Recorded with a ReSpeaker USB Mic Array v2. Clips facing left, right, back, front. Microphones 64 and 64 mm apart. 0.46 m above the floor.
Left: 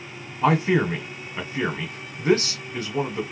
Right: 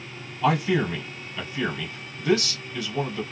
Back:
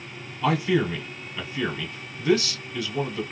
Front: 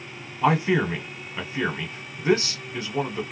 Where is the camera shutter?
No camera shutter in this recording.